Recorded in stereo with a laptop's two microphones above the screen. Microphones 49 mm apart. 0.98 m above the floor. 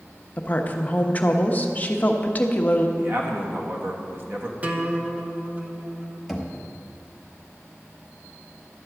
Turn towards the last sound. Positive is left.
turn(degrees=-5)  # may be behind; listen again after turning